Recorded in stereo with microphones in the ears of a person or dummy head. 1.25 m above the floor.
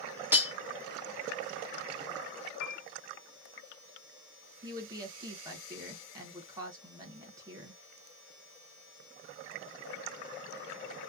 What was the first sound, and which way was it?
Cutlery clinking, 15° right (ahead or behind).